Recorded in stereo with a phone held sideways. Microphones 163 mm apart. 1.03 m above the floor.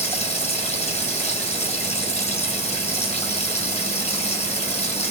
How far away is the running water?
About 3.5 m.